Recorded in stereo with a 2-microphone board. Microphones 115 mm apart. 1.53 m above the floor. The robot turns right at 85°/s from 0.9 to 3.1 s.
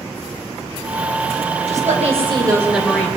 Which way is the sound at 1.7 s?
100° right.